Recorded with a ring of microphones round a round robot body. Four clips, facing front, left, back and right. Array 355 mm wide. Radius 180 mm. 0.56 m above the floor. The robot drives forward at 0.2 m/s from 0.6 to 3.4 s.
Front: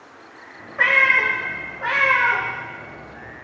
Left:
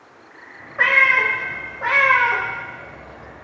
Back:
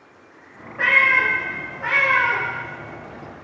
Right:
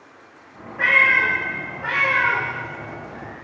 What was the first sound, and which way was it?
A cat meowing, 60° left.